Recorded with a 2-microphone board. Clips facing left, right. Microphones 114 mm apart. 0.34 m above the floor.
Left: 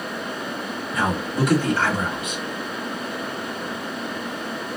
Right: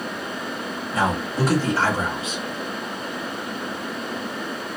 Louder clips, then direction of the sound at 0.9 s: Right 1 dB; 30° right (ahead or behind).